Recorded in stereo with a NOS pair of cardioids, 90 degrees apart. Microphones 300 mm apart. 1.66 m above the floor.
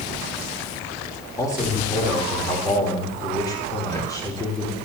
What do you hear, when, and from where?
1.4 s a man speaking: 10° left, 3 m